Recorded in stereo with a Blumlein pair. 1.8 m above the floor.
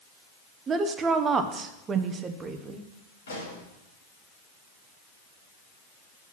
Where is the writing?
No writing in this recording.